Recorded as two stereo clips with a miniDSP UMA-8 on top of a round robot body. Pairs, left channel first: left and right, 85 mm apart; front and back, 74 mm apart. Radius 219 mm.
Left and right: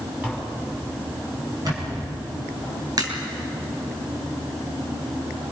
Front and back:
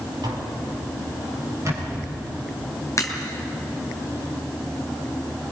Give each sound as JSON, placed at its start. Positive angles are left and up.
{"t": 0.2, "sound": "tapping", "azimuth_deg": -165, "distance_m": 5.5}
{"t": 1.6, "sound": "a camera shutter", "azimuth_deg": -130, "distance_m": 5.5}
{"t": 3.0, "sound": "a crack", "azimuth_deg": -50, "distance_m": 2.5}